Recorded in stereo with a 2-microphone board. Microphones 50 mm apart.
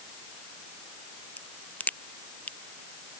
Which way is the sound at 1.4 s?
30° left (ahead or behind).